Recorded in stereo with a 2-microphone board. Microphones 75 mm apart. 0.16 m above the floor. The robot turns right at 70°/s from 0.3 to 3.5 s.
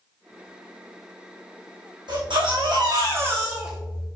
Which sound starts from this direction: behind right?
A baby crying, at 2.1 s.